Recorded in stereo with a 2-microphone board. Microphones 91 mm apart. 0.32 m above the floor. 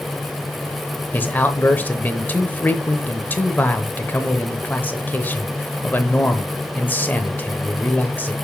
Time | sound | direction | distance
1.1 | a man speaking | 20° left (ahead or behind) | 0.9 m